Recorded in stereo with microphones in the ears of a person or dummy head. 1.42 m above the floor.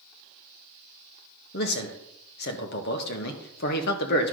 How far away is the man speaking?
About 1.3 m.